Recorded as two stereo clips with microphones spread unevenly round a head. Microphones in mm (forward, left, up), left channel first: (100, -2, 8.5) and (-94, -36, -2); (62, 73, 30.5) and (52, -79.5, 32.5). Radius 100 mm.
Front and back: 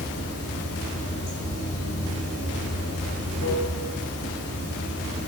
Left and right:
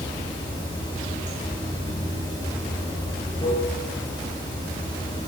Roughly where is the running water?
Ahead left.